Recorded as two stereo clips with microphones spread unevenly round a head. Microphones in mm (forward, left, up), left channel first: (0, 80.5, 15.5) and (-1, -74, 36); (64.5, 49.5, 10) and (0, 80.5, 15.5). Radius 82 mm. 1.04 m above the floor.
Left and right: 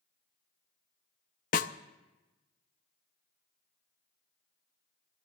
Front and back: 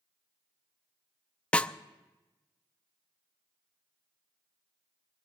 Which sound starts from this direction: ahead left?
A snare drum, at 1.5 s.